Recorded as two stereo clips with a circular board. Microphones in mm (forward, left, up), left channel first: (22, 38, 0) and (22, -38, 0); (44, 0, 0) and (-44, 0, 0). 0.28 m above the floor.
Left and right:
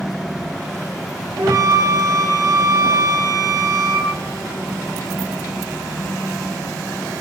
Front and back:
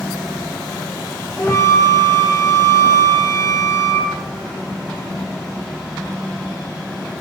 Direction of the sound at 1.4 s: 50° right.